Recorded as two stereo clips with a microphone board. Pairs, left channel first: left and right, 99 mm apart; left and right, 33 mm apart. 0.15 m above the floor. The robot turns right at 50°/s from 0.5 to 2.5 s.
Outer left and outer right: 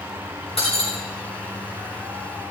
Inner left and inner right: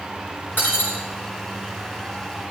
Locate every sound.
0.6 s breaking glass: 80° left, 5 m; by 1.0 s 75° left (ahead or behind), 5 m